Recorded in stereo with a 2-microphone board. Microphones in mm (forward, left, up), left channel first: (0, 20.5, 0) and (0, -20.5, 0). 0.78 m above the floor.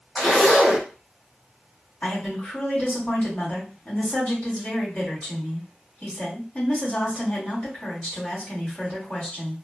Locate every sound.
0.1 s a zipper: 20° left (ahead or behind), 1.8 m
2.0 s a woman speaking: 40° left (ahead or behind), 1.9 m